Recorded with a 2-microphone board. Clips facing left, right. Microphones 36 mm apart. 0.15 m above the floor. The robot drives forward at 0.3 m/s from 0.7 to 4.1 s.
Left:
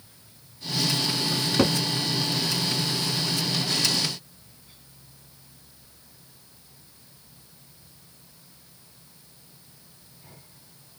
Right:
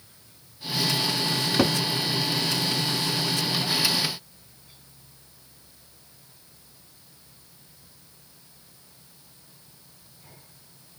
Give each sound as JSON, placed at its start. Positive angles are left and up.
{"t": 1.3, "sound": "a cupboard door", "side_deg": -5, "distance_m": 0.6}